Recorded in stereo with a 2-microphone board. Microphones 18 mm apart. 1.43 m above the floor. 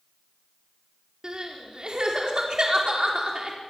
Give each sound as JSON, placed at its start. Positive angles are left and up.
{"t": 1.2, "sound": "crying", "side_deg": -40, "distance_m": 4.5}